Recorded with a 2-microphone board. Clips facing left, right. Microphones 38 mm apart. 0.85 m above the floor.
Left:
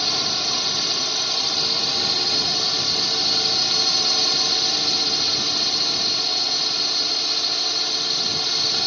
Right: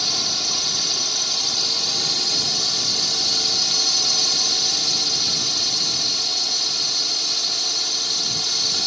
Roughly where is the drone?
Centre.